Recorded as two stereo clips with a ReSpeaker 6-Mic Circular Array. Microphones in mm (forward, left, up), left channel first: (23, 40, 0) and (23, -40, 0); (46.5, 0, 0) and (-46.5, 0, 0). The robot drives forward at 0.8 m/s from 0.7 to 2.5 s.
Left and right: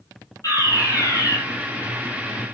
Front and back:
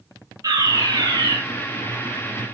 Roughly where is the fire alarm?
Behind left.